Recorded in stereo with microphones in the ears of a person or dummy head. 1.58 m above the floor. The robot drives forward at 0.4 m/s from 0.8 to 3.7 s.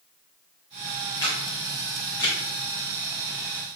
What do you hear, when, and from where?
1.2 s a camera shutter: 25° left (ahead or behind), 2 m; by 2.4 s 20° left (ahead or behind), 2.5 m